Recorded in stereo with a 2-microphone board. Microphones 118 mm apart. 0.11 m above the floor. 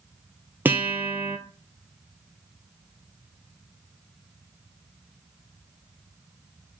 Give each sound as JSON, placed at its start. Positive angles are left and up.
{"t": 0.7, "sound": "a guitar", "side_deg": -20, "distance_m": 0.5}